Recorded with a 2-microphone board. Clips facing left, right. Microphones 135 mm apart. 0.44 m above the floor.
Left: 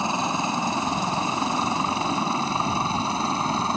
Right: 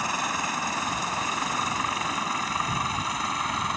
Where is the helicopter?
25° left (ahead or behind); by 3.8 s 30° left (ahead or behind).